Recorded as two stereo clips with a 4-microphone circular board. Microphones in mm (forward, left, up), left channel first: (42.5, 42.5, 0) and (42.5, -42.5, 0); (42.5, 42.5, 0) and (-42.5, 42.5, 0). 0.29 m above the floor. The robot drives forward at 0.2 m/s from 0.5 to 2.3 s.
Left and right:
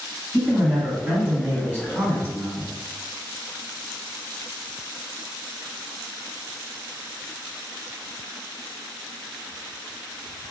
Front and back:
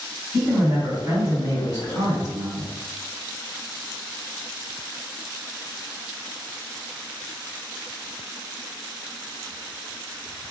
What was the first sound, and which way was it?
A man speaking, 145° right.